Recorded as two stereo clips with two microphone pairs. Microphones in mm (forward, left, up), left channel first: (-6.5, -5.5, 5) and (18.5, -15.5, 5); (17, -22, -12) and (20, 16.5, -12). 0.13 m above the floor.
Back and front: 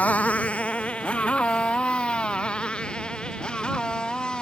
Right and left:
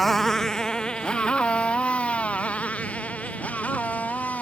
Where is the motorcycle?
175° left; by 4.4 s 150° right.